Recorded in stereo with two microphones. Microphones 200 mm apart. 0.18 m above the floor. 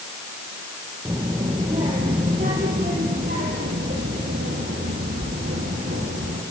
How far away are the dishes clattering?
I don't hear dishes clattering.